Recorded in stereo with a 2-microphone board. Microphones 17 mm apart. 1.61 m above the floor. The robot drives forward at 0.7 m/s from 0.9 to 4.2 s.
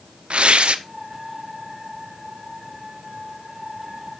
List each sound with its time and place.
0.3 s tearing paper: 85° right, 0.7 m